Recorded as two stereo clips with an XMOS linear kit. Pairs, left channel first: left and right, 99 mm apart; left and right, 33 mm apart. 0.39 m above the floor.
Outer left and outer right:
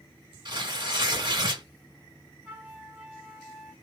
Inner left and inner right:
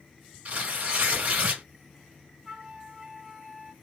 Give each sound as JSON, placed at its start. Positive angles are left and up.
{"t": 0.5, "sound": "tearing paper", "side_deg": -50, "distance_m": 1.8}
{"t": 2.5, "sound": "a flute", "side_deg": -20, "distance_m": 0.9}